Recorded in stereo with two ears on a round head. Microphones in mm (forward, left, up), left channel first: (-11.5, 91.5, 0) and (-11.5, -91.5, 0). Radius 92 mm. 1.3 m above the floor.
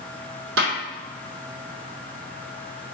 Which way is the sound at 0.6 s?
65° right (ahead or behind).